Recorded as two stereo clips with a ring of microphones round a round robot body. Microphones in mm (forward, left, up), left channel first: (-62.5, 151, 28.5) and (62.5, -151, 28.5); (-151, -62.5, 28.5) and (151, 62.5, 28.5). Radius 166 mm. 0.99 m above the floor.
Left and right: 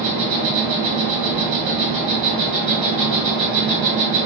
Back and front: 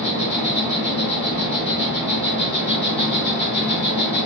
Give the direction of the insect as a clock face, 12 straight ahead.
3 o'clock.